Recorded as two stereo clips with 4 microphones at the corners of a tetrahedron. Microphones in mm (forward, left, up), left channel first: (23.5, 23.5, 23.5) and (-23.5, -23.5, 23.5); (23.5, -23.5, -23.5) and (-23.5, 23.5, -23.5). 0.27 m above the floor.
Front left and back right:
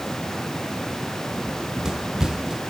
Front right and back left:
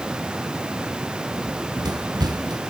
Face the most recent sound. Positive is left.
turn(degrees=145)